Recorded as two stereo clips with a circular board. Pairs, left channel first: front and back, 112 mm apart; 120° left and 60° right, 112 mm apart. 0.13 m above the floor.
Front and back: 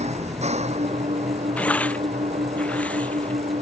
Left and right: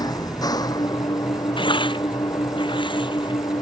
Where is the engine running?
175° left.